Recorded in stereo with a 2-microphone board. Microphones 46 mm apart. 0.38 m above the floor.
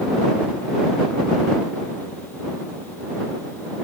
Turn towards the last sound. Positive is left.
No sound to turn to.